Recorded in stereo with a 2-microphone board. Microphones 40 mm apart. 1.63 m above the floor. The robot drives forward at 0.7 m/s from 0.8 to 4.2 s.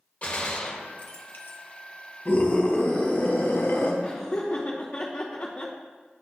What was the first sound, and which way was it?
A gunshot, 35° left (ahead or behind).